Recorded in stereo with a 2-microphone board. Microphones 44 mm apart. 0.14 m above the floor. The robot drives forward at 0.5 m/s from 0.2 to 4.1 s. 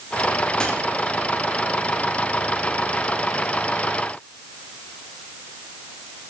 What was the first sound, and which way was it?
A dropped coin, 20° left (ahead or behind).